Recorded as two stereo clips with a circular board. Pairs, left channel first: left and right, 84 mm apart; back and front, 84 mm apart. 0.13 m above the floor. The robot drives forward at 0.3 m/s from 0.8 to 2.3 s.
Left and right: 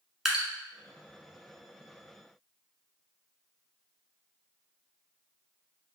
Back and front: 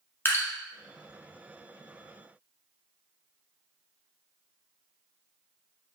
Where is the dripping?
170° right, 1.1 m.